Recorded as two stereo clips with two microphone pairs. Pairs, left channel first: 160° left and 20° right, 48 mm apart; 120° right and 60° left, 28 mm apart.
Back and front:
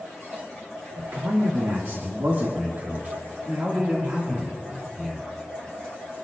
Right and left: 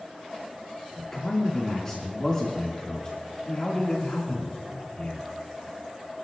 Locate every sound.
0.9 s a man speaking: 40° right, 2.5 m; by 5.2 s 100° right, 2.5 m